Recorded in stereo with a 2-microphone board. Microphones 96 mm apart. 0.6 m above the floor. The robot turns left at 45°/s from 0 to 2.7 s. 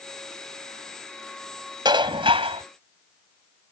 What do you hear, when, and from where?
1.9 s dishes clattering: 50° right; by 2.6 s 90° right